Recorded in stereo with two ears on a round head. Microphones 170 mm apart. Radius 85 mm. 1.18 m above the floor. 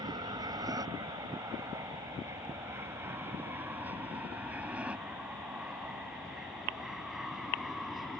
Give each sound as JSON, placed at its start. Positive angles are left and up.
{"t": 0.0, "sound": "an aircraft", "side_deg": -20}